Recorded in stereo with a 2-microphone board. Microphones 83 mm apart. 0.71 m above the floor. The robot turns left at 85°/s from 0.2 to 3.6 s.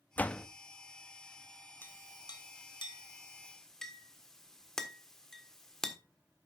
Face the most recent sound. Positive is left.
turn(degrees=5)  # may be behind; listen again after turning